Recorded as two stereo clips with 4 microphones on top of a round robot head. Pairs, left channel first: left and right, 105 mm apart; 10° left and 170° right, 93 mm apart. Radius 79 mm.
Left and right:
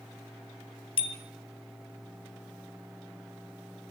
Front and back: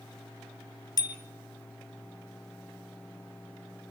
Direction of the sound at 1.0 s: 55° left.